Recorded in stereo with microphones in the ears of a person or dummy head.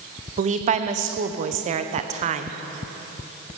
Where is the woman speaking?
40° right (ahead or behind), 0.9 m.